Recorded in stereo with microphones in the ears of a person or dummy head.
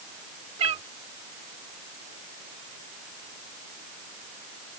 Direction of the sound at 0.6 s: 40° right (ahead or behind).